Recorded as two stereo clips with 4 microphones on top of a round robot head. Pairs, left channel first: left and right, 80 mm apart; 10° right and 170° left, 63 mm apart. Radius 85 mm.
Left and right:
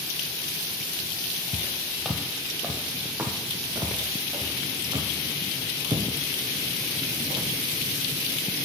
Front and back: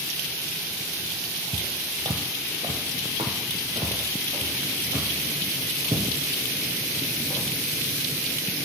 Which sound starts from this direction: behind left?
Footsteps, at 1.5 s.